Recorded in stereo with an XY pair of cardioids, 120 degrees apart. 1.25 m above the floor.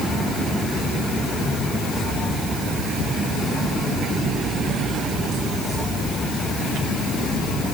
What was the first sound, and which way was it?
Only background noise.